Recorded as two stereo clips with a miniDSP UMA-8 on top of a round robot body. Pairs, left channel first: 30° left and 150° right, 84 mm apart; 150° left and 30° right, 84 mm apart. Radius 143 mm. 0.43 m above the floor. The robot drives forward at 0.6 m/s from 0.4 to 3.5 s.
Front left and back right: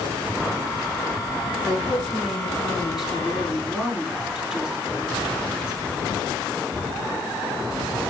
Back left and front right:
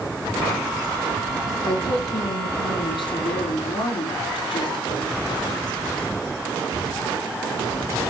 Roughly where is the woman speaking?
Behind left.